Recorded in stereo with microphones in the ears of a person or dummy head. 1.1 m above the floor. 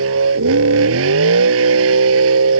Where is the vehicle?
75° right (ahead or behind).